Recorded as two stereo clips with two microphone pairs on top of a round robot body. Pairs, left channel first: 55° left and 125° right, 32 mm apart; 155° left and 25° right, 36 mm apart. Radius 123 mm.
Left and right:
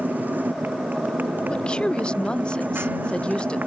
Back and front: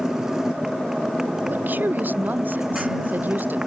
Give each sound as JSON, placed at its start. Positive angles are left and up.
{"t": 0.0, "sound": "a motorcycle", "azimuth_deg": -100}
{"t": 1.5, "sound": "a woman speaking", "azimuth_deg": -5}